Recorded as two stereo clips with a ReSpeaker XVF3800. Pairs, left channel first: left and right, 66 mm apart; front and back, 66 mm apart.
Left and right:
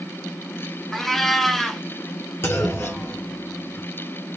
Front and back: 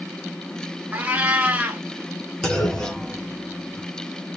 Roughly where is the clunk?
Left.